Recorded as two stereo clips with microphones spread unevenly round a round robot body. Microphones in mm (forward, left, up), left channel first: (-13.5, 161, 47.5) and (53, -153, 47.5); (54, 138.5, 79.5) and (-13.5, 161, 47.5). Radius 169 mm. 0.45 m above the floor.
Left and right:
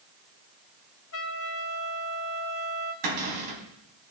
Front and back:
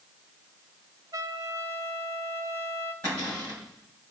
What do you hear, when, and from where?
1.1 s a trumpet: 150° left, 1.6 m
3.0 s a cupboard door: 105° right, 4 m